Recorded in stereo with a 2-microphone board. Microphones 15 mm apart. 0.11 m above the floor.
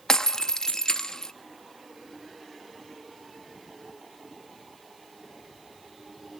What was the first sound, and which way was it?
Breaking glass, 50° left (ahead or behind).